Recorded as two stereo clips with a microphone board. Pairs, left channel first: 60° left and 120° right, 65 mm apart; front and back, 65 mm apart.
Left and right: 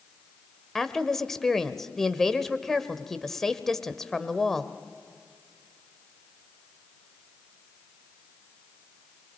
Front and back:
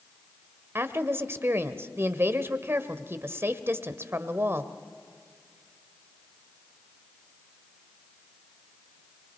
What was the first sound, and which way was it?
A woman speaking, 145° left.